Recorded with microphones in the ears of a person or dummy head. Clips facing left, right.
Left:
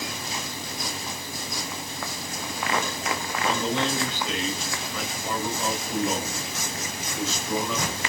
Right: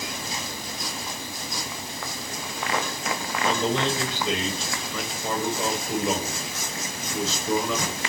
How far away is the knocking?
No knocking in this recording.